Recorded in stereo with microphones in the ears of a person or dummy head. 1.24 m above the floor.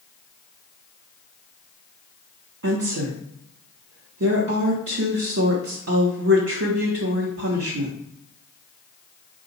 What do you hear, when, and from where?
2.6 s a woman speaking: 65° right (ahead or behind), 0.9 m